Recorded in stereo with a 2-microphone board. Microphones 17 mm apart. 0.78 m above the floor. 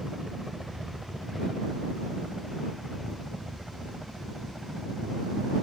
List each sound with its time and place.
0.0 s a helicopter: 60° right (ahead or behind)